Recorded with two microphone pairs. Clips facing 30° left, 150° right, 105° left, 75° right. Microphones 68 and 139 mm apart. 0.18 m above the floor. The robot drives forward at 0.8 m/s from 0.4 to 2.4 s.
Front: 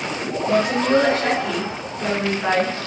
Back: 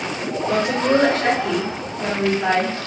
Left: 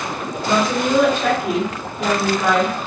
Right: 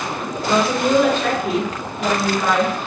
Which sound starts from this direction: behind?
A woman speaking, at 0.5 s.